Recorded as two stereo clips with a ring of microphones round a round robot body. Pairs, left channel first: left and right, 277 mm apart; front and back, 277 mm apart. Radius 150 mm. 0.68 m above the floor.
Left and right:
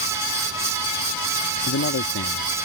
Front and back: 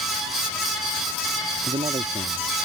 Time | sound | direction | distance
1.7 | a man speaking | 110° left | ?